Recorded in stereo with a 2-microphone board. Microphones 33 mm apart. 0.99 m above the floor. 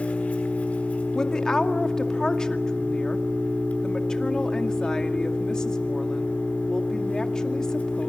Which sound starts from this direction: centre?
A woman speaking, at 1.1 s.